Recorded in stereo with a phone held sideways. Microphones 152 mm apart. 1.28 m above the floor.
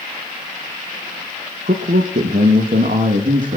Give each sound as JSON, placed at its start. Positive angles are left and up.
{"t": 1.7, "sound": "a man speaking", "side_deg": -75, "distance_m": 1.9}